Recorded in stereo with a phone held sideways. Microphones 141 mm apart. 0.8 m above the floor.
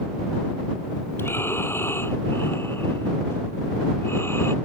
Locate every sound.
1.2 s breathing: 15° left (ahead or behind)